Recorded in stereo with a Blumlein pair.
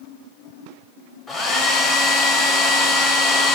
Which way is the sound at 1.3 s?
10° left.